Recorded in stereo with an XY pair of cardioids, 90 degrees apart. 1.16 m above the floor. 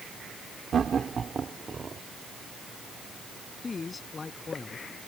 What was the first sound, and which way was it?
Laughter, 50° right.